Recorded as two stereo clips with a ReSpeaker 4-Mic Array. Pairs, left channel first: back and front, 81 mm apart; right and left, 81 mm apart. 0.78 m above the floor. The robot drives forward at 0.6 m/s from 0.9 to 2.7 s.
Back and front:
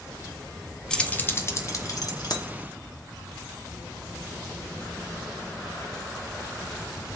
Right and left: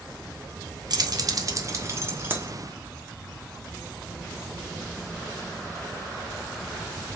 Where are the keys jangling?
100° left, 0.7 m; by 2.5 s 150° left, 1.2 m.